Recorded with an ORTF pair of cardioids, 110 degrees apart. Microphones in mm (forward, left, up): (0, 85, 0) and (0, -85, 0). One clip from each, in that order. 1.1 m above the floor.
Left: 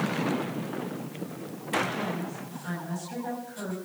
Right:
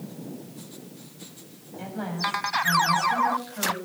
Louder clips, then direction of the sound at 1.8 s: Right 3 dB; 30° right.